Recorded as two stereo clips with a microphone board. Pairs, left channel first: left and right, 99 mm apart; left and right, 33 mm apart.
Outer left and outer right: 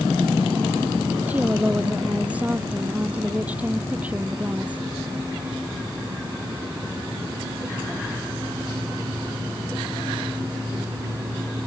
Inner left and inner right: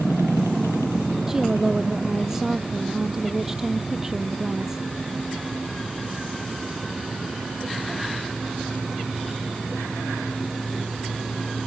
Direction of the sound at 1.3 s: 15° right (ahead or behind).